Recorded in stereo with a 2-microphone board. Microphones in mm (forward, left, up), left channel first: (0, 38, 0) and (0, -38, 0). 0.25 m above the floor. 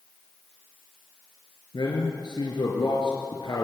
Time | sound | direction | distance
1.7 | a man speaking | 75° left (ahead or behind) | 4 m